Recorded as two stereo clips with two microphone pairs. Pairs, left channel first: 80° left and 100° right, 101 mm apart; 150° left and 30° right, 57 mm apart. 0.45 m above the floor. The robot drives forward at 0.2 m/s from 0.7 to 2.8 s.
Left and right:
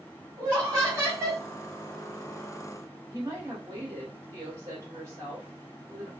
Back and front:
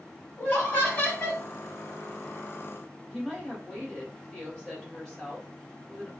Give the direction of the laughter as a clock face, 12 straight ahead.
5 o'clock.